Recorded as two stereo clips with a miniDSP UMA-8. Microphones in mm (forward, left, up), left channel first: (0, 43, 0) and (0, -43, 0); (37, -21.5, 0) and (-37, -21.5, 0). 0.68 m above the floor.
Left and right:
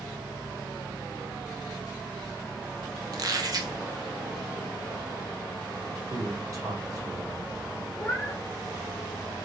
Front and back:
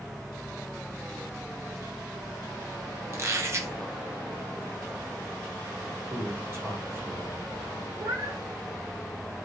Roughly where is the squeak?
Behind right.